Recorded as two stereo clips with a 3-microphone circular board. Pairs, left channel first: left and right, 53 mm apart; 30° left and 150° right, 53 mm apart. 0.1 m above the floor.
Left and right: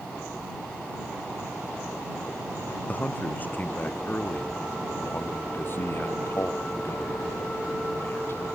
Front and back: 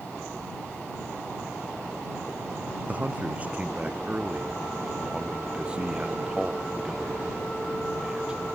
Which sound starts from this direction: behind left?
A man speaking, at 2.9 s.